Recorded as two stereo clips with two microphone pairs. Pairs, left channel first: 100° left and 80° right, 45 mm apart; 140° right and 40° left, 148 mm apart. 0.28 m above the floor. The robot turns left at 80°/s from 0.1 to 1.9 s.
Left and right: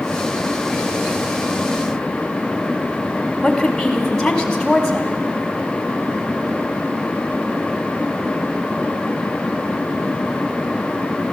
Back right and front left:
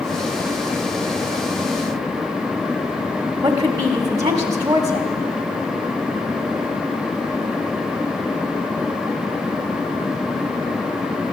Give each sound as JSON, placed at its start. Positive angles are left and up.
{"t": 3.4, "sound": "a woman speaking", "azimuth_deg": 20, "distance_m": 1.4}